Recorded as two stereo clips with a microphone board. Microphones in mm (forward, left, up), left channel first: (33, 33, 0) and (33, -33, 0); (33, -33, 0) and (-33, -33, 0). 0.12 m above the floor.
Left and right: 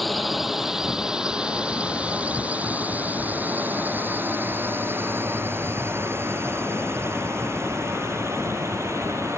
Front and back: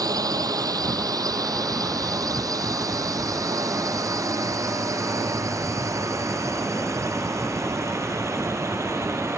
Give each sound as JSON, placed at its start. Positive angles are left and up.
{"t": 0.0, "sound": "a drone", "azimuth_deg": 180}